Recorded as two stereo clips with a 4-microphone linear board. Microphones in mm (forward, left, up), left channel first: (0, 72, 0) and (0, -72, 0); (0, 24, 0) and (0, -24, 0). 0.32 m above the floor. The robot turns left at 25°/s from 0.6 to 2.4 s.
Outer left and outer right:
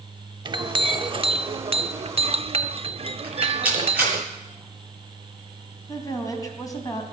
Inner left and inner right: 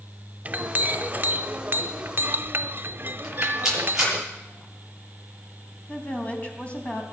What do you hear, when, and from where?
0.5 s a clink: 50° right, 0.6 m; by 4.2 s 95° right, 0.6 m
3.2 s a rattle: 10° right (ahead or behind), 7.5 m
5.9 s a woman speaking: 25° left (ahead or behind), 3 m